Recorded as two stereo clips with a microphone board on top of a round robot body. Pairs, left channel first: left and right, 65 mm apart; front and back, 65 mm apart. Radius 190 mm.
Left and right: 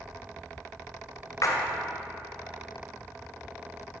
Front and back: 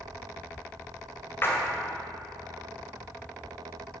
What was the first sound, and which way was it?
A splash, 55° left.